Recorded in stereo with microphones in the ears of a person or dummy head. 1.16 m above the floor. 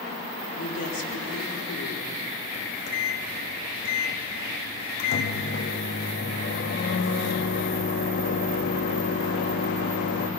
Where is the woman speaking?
75° left (ahead or behind), 3.5 m.